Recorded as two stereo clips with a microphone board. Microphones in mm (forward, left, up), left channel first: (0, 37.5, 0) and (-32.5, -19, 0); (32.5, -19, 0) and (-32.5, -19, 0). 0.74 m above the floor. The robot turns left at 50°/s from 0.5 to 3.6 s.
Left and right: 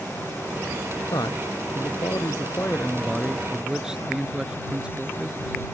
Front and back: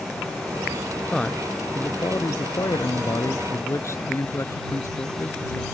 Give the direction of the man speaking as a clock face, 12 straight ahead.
9 o'clock.